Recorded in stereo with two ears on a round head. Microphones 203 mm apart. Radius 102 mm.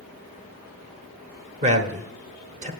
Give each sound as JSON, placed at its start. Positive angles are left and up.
{"t": 1.6, "sound": "a man speaking", "side_deg": -30, "distance_m": 1.3}